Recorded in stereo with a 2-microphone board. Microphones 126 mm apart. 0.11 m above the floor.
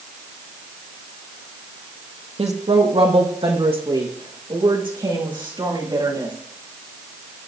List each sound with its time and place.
2.4 s a woman speaking: 55° right (ahead or behind), 3.5 m; by 6.3 s 40° right (ahead or behind), 9 m